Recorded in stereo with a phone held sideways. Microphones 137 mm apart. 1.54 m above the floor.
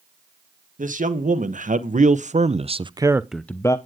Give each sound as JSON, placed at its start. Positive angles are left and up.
{"t": 0.8, "sound": "a man speaking", "side_deg": -75, "distance_m": 1.6}